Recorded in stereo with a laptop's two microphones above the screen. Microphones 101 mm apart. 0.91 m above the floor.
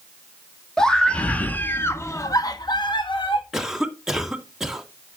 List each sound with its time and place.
0.8 s a scream: 10° left (ahead or behind), 1.8 m; by 3.4 s 60° left (ahead or behind), 1.4 m
3.5 s a cough: centre (ahead or behind), 2.5 m